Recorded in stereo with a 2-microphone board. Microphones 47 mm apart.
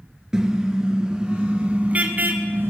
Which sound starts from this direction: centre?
A car horn, at 0.3 s.